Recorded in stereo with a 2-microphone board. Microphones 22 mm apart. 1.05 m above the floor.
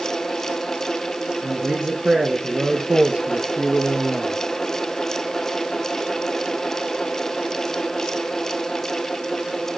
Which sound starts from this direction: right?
A man speaking, at 1.4 s.